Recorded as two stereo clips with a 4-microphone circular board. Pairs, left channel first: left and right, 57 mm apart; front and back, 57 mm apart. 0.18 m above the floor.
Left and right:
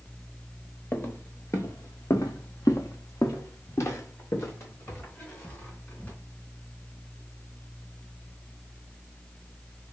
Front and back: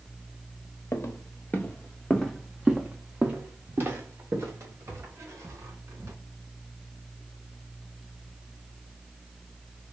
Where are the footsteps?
40° left, 1.0 m; by 6.1 s 145° left, 2 m.